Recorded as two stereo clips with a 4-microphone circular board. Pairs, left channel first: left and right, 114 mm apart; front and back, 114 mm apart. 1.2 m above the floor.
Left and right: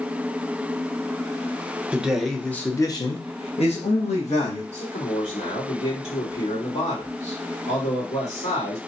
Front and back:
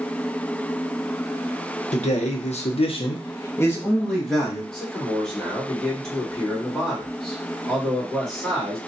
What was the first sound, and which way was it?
A man speaking, 10° right.